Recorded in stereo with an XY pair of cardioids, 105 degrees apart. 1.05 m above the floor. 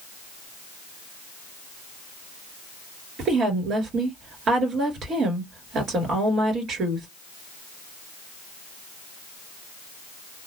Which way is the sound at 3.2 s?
65° right.